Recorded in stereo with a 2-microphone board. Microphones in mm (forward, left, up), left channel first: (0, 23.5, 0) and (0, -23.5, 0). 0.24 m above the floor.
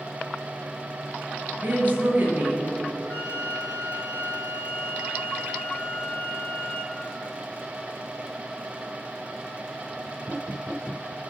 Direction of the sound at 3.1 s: 40° left (ahead or behind).